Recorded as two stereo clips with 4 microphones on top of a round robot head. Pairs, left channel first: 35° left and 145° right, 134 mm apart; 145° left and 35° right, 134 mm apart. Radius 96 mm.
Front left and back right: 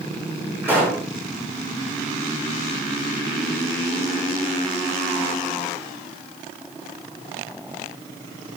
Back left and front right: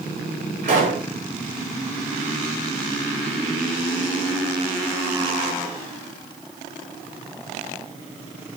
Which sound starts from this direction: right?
A pop, at 0.6 s.